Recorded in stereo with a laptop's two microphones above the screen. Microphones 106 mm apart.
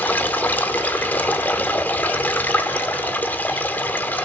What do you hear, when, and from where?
0.0 s running water: 15° left (ahead or behind), 0.9 m